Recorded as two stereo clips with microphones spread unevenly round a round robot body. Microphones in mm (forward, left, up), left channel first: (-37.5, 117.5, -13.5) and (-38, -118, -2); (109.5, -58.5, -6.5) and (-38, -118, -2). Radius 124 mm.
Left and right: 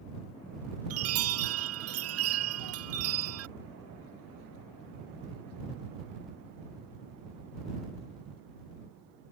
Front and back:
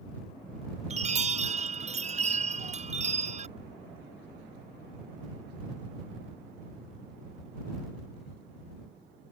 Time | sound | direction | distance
0.9 | a chime | 115° right | ?